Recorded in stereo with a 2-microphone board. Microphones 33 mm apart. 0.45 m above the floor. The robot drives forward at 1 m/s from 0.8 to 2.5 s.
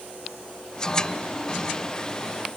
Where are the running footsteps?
I don't hear running footsteps.